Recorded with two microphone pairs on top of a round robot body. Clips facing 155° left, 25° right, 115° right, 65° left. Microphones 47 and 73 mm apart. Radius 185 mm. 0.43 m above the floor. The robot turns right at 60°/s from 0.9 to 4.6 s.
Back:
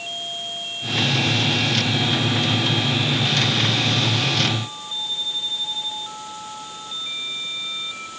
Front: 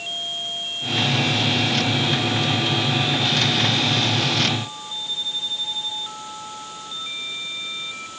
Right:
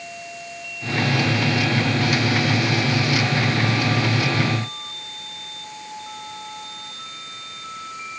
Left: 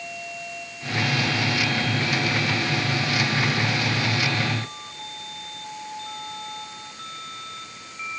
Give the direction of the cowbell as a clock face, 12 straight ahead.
I don't hear a cowbell.